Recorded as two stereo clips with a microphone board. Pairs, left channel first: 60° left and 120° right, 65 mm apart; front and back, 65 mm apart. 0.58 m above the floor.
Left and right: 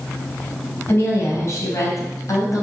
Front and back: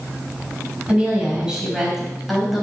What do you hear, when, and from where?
0.9 s a woman speaking: 110° left, 3.5 m; by 2.6 s 90° left, 3 m